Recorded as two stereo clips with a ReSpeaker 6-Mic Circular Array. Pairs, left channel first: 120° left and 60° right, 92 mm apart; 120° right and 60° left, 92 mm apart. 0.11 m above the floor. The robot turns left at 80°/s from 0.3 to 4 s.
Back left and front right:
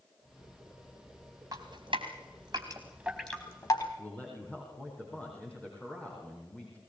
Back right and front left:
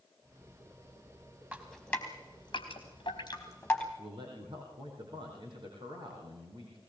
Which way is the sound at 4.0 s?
50° left.